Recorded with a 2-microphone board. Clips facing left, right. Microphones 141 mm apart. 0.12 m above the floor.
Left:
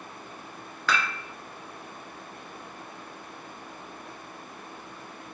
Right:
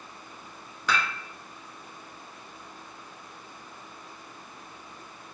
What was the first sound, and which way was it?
Dishes clattering, 15° right (ahead or behind).